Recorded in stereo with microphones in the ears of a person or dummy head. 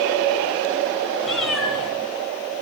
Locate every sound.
1.2 s a cat meowing: centre (ahead or behind), 3 m